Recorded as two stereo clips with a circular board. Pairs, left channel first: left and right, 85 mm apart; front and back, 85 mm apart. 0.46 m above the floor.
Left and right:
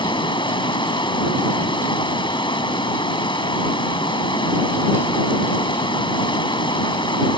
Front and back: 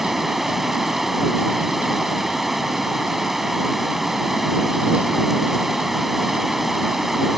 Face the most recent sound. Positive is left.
turn(degrees=90)